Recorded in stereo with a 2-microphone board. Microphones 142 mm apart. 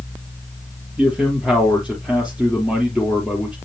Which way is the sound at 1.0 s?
5° right (ahead or behind).